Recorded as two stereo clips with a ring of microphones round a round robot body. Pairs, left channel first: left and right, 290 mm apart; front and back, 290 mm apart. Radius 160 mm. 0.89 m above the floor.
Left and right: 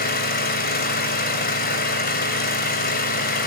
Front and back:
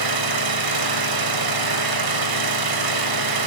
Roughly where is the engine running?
Behind left.